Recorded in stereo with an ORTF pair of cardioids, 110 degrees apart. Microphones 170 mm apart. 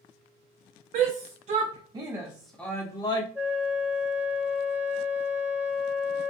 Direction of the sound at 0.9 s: 60° right.